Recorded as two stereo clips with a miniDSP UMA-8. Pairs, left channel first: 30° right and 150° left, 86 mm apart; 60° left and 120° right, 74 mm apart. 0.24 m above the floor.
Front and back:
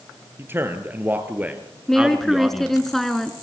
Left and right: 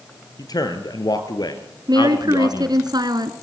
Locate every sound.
0.4 s a man speaking: 90° left, 4 m; by 2.8 s 65° left, 2.5 m
1.9 s a woman speaking: 115° right, 2.5 m